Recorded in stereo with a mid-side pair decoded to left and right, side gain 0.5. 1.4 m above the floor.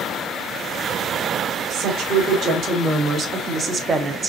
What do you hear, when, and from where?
1.7 s a woman speaking: 65° right, 2 m; by 4.3 s 30° right, 1.0 m